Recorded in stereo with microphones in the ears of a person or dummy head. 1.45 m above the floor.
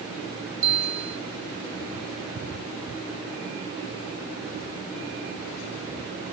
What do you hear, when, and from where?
0.6 s a bell: 80° right, 1.3 m